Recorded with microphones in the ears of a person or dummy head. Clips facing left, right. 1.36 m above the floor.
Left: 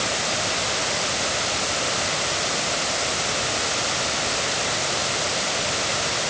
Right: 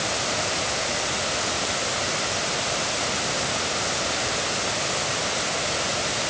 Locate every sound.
Only background noise.